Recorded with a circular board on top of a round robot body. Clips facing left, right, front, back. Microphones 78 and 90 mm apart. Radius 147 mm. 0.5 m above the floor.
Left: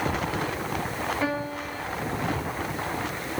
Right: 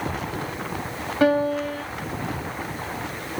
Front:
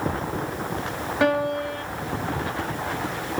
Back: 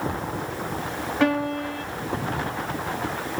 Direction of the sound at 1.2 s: 80° right.